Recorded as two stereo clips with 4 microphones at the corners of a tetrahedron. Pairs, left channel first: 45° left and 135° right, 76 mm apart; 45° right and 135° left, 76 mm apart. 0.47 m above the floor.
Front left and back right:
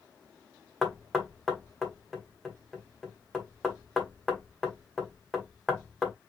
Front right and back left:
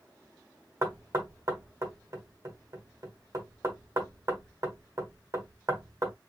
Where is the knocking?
135° left, 1.2 m.